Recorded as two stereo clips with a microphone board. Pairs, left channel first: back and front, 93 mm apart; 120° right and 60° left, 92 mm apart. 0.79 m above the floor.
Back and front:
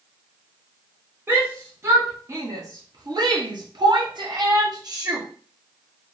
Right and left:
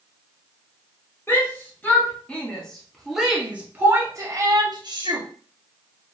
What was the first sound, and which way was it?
A shout, 60° right.